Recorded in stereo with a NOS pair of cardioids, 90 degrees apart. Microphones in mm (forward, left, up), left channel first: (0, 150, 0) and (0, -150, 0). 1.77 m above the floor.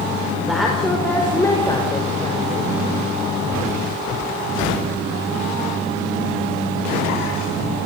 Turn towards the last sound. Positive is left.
turn(degrees=20)